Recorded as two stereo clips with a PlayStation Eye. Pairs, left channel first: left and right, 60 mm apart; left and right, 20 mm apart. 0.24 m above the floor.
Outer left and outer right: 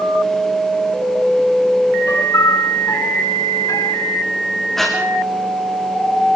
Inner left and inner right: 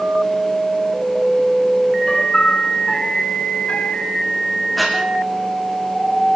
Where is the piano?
65° left (ahead or behind), 1.5 m.